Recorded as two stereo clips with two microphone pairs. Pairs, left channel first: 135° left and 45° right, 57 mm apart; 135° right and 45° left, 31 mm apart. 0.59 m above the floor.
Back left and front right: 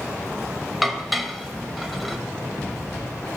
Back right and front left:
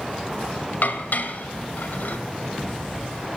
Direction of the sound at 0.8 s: 130° right.